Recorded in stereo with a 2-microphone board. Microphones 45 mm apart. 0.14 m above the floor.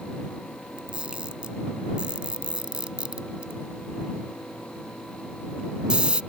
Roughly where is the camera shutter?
Right.